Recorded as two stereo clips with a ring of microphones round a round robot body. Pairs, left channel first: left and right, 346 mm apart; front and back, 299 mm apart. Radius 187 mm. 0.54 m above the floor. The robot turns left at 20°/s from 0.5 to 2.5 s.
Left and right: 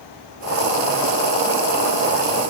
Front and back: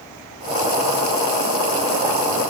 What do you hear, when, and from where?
Only background noise.